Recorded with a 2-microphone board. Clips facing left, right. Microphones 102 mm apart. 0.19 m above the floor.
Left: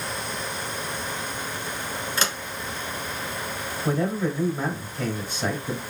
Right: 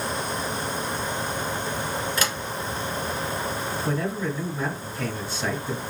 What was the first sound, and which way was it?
A sliding door, 30° left (ahead or behind).